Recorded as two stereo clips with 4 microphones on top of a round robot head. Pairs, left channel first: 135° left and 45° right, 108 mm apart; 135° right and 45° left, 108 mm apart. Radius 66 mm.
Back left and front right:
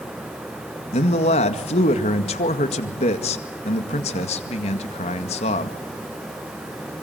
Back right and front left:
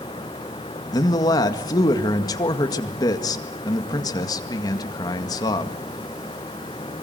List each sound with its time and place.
0.9 s a man speaking: 165° left, 2 m